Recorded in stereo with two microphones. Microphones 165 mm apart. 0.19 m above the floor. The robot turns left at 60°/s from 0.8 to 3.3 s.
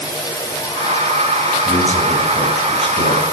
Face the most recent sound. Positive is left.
turn(degrees=90)